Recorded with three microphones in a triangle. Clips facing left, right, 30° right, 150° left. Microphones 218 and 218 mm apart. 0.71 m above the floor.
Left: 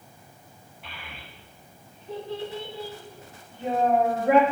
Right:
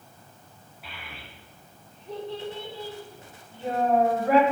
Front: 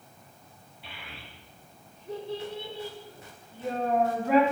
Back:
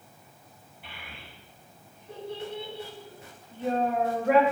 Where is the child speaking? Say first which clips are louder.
Even, front 1 dB; 175° right, 3.5 m; by 4.4 s 155° left, 2.5 m.